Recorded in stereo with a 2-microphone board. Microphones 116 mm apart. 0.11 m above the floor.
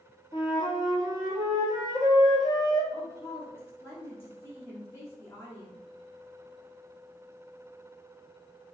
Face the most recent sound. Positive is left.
turn(degrees=20)  # may be behind; listen again after turning